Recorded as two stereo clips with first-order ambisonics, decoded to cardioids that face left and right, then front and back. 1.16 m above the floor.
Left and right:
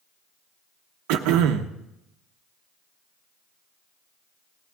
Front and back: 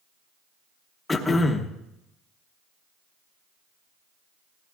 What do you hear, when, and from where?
1.1 s throat clearing: 80° right, 0.9 m